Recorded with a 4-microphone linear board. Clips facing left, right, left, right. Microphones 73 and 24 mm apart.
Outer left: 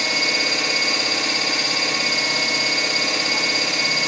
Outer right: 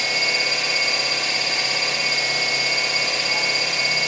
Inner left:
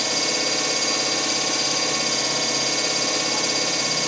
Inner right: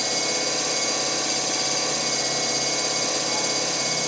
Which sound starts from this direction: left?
An engine running, at 0.0 s.